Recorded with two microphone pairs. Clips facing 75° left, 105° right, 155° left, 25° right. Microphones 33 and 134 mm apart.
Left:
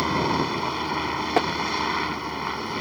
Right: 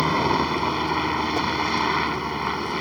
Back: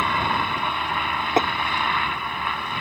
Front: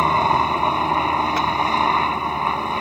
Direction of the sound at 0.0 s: 30° right.